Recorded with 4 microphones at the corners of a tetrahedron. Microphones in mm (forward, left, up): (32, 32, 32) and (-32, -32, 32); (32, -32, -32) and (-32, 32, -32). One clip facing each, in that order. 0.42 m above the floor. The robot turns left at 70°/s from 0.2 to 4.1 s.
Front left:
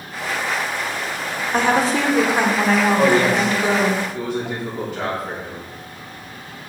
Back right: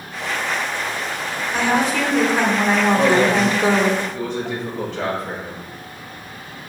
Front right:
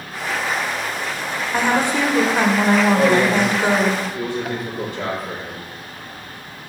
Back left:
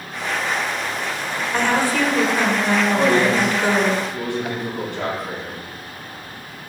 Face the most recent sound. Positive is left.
turn(degrees=125)